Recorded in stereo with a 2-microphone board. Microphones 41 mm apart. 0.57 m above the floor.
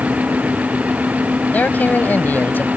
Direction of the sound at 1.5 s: 45° left (ahead or behind).